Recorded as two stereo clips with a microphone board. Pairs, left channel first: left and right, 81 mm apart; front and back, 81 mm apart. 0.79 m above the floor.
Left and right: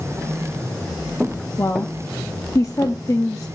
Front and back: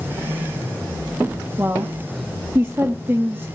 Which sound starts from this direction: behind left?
A woman speaking, at 1.6 s.